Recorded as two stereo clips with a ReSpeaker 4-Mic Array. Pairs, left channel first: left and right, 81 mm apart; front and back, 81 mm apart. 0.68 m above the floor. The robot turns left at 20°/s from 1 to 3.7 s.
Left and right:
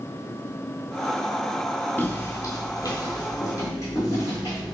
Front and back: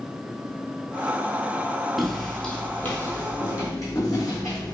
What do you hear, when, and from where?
2.0 s footsteps: 90° left, 0.7 m; by 4.8 s 40° left, 2.5 m